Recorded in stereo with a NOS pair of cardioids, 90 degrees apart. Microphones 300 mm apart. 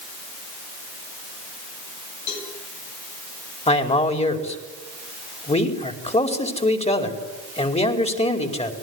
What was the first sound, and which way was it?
A cowbell, 70° left.